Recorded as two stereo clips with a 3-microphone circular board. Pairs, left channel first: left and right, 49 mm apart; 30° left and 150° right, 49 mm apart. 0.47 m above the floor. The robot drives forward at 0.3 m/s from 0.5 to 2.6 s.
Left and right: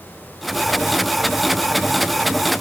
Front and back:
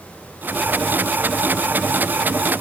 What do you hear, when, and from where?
Only background noise.